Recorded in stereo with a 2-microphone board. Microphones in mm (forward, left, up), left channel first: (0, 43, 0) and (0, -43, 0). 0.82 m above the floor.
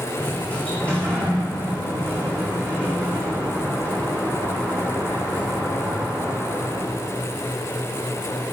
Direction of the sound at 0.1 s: 15° left (ahead or behind).